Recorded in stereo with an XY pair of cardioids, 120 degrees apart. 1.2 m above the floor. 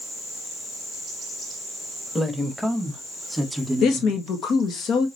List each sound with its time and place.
2.1 s a woman speaking: 5° left, 1.8 m; by 4.2 s 5° right, 3 m
3.8 s a woman speaking: 65° left, 1.6 m